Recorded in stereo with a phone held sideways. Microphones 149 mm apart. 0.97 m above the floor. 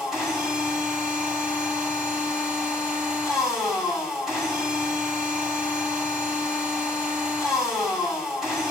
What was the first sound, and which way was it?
A machine running, centre (ahead or behind).